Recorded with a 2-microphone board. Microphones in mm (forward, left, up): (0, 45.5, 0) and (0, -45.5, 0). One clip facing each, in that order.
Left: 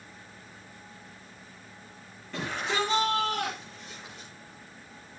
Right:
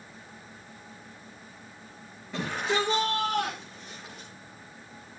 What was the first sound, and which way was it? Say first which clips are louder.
A shout: right 2 dB; 10° right (ahead or behind).